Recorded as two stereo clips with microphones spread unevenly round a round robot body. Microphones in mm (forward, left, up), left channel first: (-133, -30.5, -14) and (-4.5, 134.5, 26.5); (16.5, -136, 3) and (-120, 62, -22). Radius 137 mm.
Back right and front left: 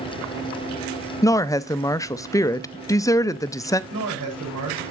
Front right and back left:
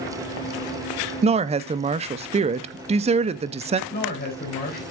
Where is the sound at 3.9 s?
5° left, 3 m.